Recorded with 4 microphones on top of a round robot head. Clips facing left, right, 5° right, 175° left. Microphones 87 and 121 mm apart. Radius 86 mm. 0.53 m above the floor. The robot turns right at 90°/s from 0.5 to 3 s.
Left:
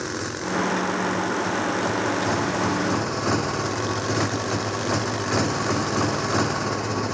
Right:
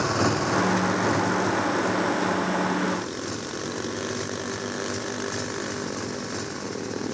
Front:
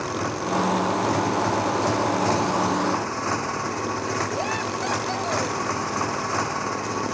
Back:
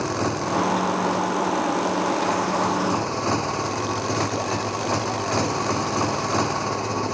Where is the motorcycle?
110° right; by 7.1 s 115° left.